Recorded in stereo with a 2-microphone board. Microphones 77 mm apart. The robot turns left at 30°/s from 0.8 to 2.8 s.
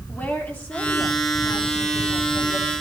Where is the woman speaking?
155° left, 4 m; by 2.7 s 100° left, 4 m.